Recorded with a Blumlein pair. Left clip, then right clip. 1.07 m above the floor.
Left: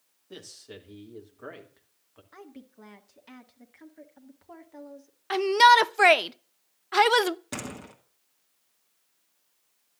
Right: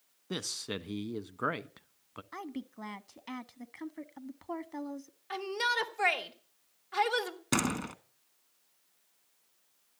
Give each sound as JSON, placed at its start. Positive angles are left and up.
{"t": 0.3, "sound": "a man speaking", "azimuth_deg": -60, "distance_m": 1.2}
{"t": 2.3, "sound": "a woman speaking", "azimuth_deg": -70, "distance_m": 1.5}
{"t": 5.3, "sound": "a shout", "azimuth_deg": 60, "distance_m": 0.6}
{"t": 7.5, "sound": "a door slam", "azimuth_deg": -70, "distance_m": 1.6}